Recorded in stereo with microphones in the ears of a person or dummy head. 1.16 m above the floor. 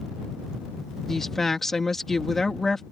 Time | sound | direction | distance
1.1 | a woman speaking | centre (ahead or behind) | ?